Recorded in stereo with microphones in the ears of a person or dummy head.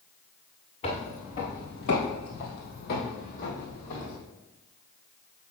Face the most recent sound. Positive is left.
turn(degrees=45)  # may be behind; listen again after turning